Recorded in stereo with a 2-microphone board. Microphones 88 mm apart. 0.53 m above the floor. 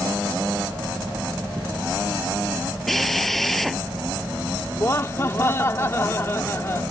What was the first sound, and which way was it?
A drill, centre (ahead or behind).